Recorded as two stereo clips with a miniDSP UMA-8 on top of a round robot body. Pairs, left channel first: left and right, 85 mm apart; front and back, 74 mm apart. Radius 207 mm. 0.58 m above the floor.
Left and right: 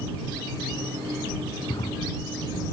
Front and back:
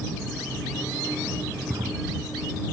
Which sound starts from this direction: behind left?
A drawer, at 1.7 s.